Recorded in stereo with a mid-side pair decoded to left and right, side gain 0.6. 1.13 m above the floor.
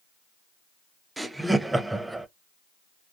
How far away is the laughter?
About 0.5 m.